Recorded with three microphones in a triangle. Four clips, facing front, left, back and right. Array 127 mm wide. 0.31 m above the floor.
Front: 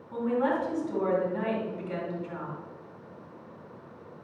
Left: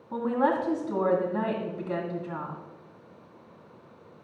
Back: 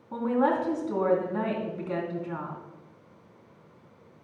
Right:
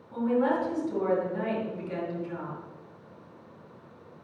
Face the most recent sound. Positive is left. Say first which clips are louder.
# even, back 2 dB
turn(degrees=130)